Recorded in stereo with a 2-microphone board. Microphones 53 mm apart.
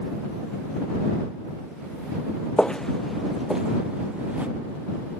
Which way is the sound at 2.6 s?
15° left (ahead or behind).